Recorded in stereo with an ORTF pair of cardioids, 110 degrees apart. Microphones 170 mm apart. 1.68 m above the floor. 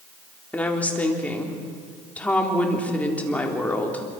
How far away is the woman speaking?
About 4 m.